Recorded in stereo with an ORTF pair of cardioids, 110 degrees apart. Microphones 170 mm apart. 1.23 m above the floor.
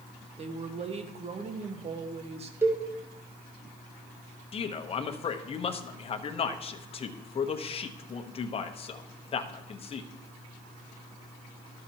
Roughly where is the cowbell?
Ahead.